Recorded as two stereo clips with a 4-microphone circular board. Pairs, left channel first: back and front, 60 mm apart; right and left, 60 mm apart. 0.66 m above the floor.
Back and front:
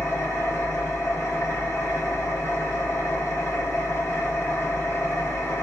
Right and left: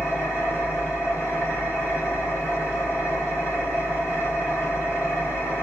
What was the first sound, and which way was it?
An engine running, 150° right.